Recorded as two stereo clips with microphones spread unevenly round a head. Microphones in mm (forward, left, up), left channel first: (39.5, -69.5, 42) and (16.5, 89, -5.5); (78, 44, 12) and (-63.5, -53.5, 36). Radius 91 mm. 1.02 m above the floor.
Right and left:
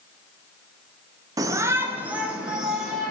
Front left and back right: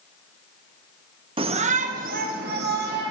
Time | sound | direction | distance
1.4 | a shout | 150° left | 0.6 m